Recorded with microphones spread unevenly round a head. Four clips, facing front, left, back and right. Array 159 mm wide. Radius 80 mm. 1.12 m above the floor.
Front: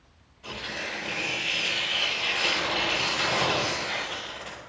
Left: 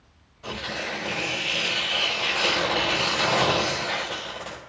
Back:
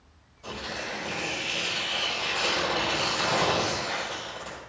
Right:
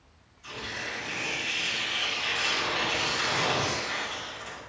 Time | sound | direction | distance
0.4 | tearing paper | 100° left | 5.5 m